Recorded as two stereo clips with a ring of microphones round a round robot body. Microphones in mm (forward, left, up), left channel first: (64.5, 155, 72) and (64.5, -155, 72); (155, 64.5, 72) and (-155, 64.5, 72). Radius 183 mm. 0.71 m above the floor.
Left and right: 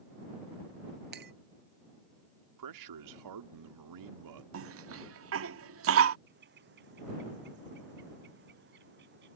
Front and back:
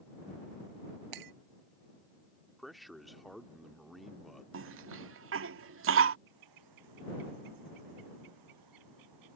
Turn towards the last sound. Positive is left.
turn(degrees=-150)